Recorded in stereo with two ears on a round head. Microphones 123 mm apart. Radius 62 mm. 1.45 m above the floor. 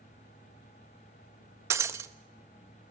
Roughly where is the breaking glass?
Centre.